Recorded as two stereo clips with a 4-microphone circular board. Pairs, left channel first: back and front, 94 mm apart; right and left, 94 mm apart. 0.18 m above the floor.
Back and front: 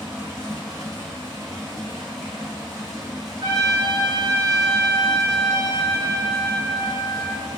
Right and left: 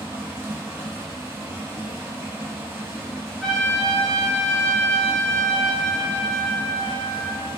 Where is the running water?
35° left, 1.6 m.